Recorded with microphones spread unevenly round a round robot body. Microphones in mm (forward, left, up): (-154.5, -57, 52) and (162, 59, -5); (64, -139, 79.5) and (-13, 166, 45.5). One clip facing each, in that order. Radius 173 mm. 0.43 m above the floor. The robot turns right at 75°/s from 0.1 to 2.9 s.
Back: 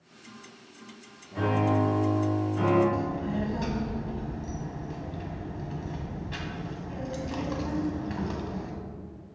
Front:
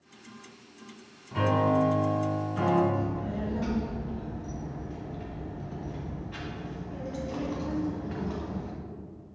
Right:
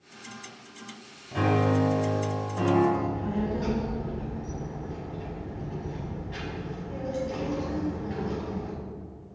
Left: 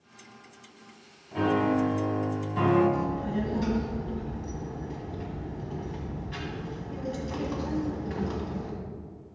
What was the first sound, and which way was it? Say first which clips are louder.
A piano: even, even; 10° right.